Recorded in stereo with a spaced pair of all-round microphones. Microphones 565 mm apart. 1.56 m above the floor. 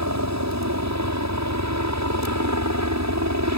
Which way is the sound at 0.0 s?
30° right (ahead or behind).